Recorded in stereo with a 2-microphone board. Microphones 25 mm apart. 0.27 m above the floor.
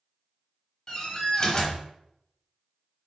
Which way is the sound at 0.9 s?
25° left (ahead or behind).